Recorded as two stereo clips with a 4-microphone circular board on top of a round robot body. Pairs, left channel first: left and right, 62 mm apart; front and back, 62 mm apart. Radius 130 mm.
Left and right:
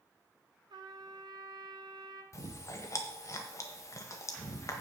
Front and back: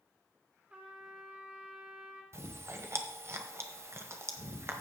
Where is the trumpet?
105° right, 0.9 m.